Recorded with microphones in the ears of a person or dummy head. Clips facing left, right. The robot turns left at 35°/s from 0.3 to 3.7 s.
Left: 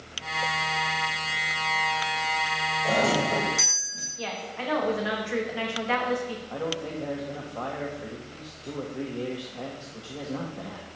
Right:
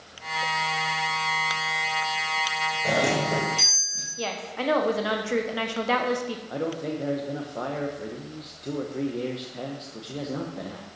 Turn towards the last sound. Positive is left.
turn(degrees=-35)  # may be behind; listen again after turning